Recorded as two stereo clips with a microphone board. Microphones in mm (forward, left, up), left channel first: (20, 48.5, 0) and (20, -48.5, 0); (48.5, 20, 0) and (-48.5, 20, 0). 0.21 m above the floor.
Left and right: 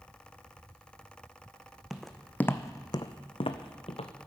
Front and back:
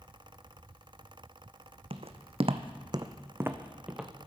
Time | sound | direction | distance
1.9 | footsteps | 175° right | 0.7 m